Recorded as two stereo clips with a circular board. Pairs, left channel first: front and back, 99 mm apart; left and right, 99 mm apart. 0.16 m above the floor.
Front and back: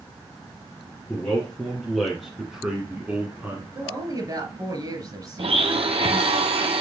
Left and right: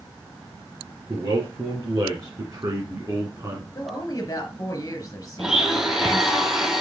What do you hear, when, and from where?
1.1 s a man speaking: 70° right, 2 m; by 3.6 s 135° right, 1.9 m
3.8 s a woman speaking: 140° left, 2.5 m
5.4 s a blender: 175° right, 0.9 m